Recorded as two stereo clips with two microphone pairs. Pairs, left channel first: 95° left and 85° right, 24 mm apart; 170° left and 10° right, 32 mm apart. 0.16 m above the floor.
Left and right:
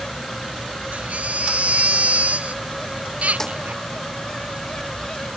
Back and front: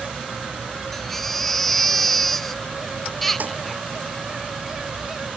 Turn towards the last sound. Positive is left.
turn(degrees=25)